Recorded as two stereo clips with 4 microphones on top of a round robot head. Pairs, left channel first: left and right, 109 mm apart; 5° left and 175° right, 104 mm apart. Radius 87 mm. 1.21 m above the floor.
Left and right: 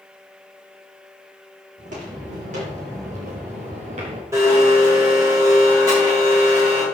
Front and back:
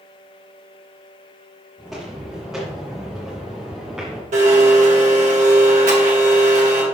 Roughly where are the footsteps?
Right.